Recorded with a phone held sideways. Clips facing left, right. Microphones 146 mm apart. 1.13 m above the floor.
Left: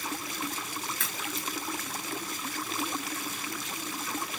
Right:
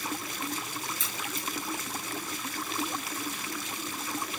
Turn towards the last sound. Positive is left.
turn(degrees=65)  # may be behind; listen again after turning